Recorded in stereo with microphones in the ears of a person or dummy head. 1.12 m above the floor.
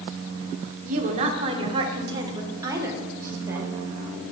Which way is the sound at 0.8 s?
40° right (ahead or behind).